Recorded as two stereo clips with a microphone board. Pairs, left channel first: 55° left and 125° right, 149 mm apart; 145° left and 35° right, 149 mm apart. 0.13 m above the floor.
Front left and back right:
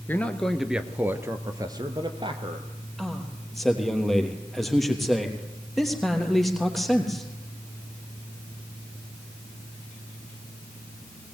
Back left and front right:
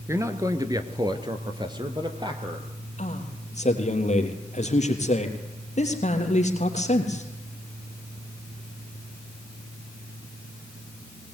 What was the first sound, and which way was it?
A man speaking, straight ahead.